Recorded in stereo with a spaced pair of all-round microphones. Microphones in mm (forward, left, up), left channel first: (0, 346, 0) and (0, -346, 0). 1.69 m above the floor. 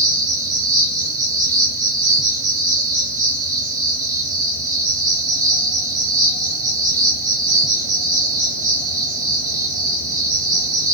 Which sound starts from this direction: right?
An insect, at 0.0 s.